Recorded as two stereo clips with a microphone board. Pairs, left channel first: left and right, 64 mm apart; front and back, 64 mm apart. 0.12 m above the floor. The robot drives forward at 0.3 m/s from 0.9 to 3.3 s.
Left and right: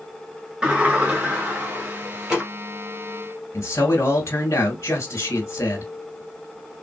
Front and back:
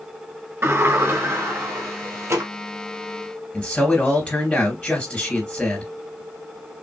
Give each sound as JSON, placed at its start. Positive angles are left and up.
{"t": 0.6, "sound": "a sliding door", "azimuth_deg": -155, "distance_m": 1.7}
{"t": 3.5, "sound": "a man speaking", "azimuth_deg": 75, "distance_m": 2.5}